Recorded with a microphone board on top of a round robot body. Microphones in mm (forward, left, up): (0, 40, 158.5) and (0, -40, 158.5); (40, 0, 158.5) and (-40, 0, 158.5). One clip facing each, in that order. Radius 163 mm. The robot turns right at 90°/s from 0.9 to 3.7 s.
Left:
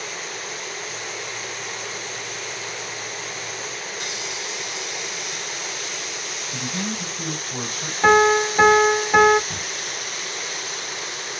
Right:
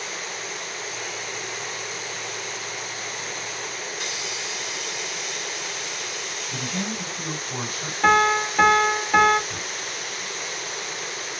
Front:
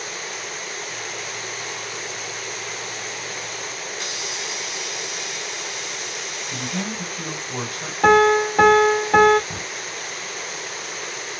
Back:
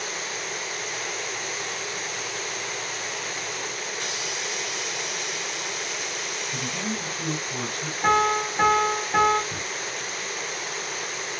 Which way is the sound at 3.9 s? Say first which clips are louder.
Left 1 dB, front 1 dB; 15° left.